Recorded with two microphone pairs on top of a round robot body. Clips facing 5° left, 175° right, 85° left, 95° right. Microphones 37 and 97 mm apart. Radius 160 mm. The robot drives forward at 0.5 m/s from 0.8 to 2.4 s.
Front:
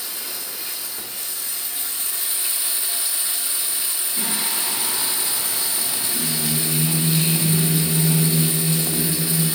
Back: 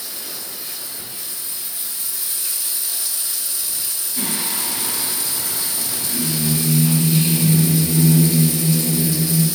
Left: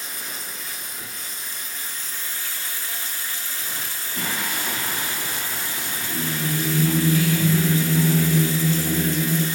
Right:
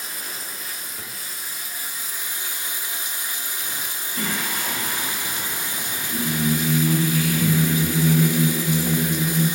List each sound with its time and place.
0.0 s running water: straight ahead, 1.4 m; by 9.6 s 5° right, 0.7 m
4.2 s singing: 85° left, 2.5 m